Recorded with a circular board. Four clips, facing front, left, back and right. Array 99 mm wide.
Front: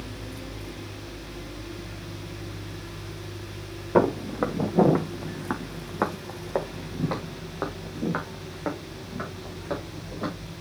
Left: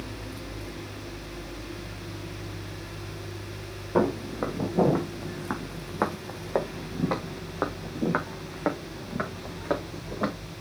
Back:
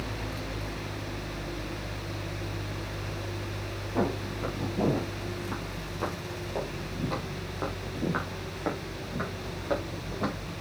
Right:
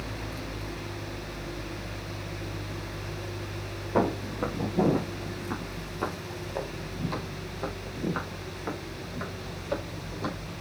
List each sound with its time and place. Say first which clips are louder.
4.0 s footsteps: left 2 dB, front 8 dB; straight ahead, 3 m; by 10.3 s 100° left, 5 m